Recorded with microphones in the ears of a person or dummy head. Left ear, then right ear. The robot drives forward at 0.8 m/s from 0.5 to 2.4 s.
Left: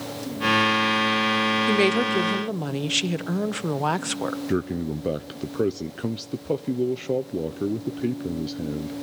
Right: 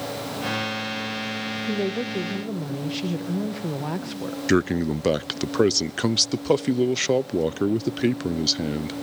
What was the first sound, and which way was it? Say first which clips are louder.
A woman speaking: left 6 dB; 65° left (ahead or behind).